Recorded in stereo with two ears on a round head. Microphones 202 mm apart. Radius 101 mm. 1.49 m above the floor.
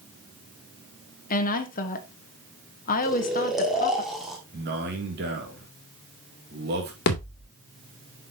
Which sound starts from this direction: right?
A man speaking, at 4.5 s.